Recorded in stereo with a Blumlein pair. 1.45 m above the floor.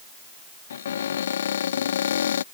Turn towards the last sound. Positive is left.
turn(degrees=65)